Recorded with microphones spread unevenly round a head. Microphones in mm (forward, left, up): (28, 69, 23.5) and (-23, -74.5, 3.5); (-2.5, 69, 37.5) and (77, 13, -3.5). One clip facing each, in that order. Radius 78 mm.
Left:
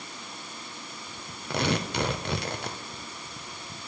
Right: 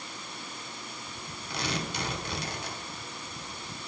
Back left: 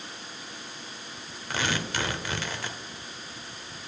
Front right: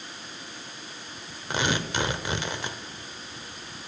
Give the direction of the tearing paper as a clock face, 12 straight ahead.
10 o'clock.